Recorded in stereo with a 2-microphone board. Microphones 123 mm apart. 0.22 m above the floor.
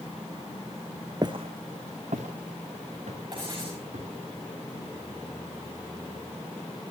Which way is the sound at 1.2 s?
35° right (ahead or behind).